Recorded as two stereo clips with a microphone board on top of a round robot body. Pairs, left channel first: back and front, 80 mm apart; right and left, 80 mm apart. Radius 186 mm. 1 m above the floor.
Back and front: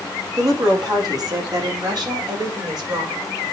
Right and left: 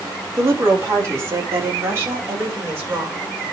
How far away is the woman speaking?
About 3 m.